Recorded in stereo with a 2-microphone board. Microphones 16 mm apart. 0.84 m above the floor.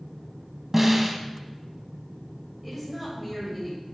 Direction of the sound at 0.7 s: 20° right (ahead or behind).